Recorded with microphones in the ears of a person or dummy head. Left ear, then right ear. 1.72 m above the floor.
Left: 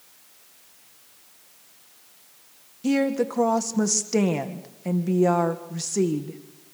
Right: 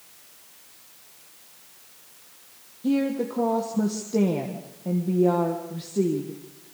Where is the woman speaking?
70° left (ahead or behind), 1.7 m.